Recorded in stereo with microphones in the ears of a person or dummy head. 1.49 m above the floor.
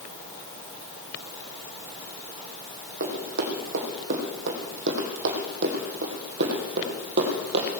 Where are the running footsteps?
60° right (ahead or behind), 5 m; by 7.7 s 55° right (ahead or behind), 2.5 m.